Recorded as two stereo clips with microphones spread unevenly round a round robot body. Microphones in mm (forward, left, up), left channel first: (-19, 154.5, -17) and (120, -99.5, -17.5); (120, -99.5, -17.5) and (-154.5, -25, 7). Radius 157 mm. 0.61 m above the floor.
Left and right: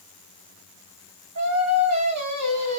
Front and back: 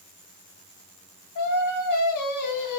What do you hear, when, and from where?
1.4 s singing: 30° right, 2.5 m